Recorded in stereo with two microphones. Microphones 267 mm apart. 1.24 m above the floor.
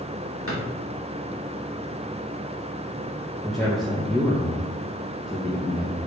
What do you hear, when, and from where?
0.5 s a drawer: 50° left (ahead or behind), 2 m
3.4 s a man speaking: centre (ahead or behind), 1.0 m